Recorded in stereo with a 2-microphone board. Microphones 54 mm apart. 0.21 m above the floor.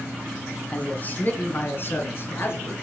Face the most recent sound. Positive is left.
turn(degrees=50)  # may be behind; listen again after turning